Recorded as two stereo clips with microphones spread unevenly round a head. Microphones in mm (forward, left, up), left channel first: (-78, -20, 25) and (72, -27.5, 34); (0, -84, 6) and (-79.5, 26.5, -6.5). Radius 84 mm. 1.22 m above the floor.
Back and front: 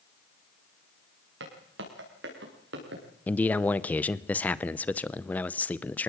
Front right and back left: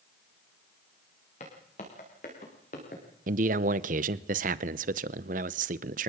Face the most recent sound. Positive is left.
turn(degrees=100)